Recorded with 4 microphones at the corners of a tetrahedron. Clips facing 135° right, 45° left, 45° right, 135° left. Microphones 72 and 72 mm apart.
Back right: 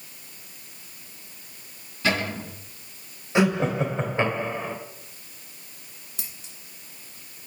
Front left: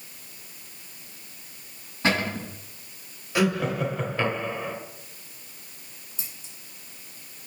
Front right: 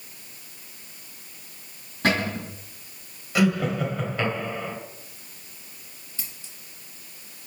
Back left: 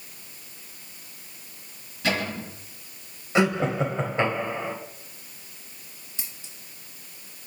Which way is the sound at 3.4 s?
175° left.